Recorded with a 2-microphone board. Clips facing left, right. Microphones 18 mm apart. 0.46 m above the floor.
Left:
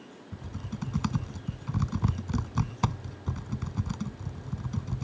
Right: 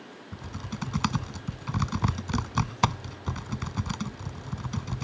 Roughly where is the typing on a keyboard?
Right.